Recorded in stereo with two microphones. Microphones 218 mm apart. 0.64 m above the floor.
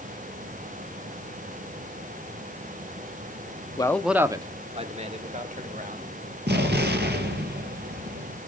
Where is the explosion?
50° right (ahead or behind), 2 m.